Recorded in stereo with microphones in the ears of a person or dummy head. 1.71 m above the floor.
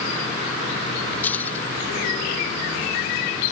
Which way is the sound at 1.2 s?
10° left (ahead or behind).